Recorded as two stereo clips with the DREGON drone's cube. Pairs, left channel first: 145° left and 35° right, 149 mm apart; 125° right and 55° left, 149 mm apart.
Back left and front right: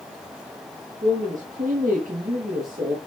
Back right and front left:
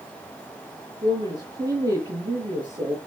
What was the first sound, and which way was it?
A woman speaking, 10° right.